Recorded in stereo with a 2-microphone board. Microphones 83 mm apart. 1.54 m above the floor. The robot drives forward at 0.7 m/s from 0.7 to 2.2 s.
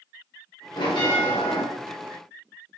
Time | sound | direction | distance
0.8 | a bell | 70° left (ahead or behind) | 1.6 m